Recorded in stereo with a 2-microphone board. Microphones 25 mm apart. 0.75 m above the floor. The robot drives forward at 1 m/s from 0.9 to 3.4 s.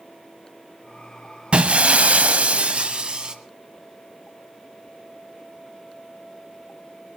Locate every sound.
1.5 s breaking glass: 50° right (ahead or behind), 1.2 m; by 3.4 s 35° right (ahead or behind), 1.6 m